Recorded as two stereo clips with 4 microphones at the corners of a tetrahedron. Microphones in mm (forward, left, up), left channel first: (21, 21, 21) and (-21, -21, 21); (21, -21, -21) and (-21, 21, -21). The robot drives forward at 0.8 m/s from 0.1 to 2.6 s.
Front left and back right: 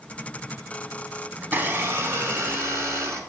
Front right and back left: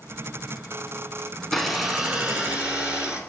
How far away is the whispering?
No whispering in this recording.